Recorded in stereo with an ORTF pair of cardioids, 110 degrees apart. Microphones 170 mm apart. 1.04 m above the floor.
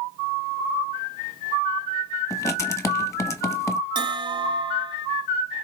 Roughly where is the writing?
Ahead.